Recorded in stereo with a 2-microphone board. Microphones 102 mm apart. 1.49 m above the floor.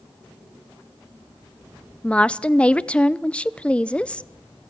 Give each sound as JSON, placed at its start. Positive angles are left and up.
{"t": 2.0, "sound": "a woman speaking", "side_deg": 10, "distance_m": 0.6}